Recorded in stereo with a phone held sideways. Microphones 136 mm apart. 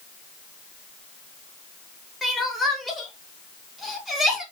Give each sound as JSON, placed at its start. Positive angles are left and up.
{"t": 2.2, "sound": "crying", "side_deg": 0, "distance_m": 0.9}